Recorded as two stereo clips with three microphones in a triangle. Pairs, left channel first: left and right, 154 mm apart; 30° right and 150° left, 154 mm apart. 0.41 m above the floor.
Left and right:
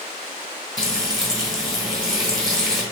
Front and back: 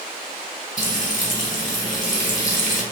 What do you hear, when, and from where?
0.8 s frying: 5° right, 2.5 m